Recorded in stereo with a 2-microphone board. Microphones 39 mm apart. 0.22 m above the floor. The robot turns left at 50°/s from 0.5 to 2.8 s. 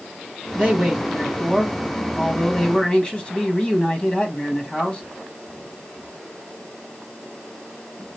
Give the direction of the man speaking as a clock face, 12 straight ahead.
4 o'clock.